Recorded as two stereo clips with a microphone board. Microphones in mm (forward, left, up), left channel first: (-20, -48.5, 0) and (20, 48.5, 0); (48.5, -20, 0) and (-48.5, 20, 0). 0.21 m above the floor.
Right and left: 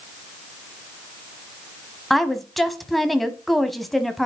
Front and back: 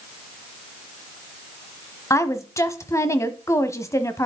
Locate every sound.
2.1 s a woman speaking: 25° right, 1.0 m